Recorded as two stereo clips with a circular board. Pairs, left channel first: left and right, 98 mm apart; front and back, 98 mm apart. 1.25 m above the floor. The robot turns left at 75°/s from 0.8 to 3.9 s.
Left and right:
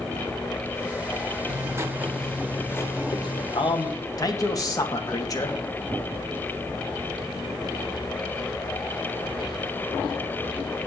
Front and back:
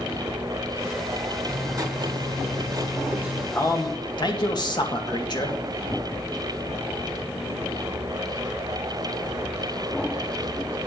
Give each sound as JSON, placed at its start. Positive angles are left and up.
{"t": 1.5, "sound": "writing", "azimuth_deg": -120, "distance_m": 1.3}
{"t": 3.5, "sound": "a man speaking", "azimuth_deg": 65, "distance_m": 1.9}